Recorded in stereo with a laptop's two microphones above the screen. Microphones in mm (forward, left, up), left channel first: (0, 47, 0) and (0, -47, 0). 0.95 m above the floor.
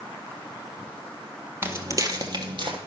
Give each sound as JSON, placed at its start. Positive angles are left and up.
{"t": 1.6, "sound": "footsteps", "side_deg": -25, "distance_m": 1.3}